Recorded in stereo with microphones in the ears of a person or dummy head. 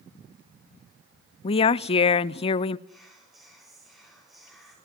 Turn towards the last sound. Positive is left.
turn(degrees=0)  # may be behind; listen again after turning